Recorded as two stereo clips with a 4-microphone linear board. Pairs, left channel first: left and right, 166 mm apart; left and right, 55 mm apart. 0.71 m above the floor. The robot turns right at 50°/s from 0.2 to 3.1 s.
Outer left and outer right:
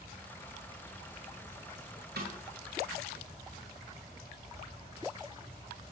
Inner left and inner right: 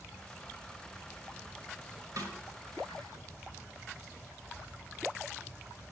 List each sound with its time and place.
2.2 s a snare drum: 85° right, 2 m; by 2.3 s 80° right, 2 m